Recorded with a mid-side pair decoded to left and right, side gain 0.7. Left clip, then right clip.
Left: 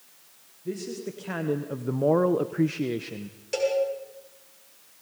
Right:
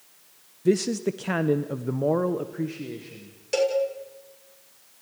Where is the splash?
No splash in this recording.